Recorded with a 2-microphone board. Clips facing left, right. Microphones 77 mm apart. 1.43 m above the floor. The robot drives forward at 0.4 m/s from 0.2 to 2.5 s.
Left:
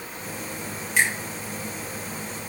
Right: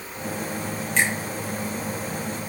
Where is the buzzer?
I don't hear a buzzer.